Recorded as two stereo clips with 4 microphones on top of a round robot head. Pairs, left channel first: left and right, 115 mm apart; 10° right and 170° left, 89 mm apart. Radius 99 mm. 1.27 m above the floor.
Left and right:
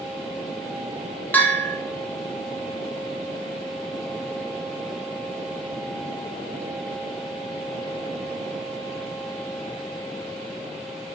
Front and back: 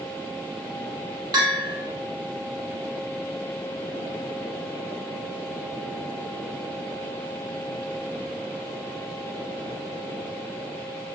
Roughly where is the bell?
Behind.